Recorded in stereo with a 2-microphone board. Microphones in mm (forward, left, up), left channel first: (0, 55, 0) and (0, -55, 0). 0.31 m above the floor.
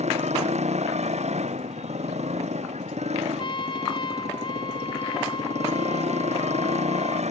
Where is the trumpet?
50° left (ahead or behind).